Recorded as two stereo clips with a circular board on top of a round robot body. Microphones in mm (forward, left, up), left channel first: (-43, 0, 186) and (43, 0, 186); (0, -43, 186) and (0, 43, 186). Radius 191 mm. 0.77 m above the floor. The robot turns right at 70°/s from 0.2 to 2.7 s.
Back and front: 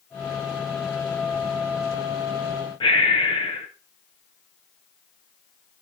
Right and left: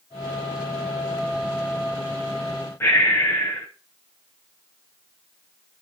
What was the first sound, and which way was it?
Breathing, 155° right.